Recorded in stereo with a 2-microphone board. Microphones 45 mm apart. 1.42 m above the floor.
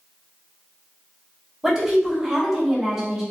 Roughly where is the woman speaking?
Centre.